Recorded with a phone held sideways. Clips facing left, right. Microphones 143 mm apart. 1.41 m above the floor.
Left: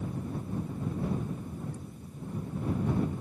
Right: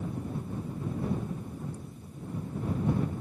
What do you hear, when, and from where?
1.7 s laughter: 65° left (ahead or behind)